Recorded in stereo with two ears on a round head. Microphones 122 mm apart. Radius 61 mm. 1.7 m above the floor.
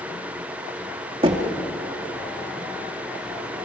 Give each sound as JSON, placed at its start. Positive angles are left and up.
{"t": 1.2, "sound": "knocking", "side_deg": -35, "distance_m": 2.0}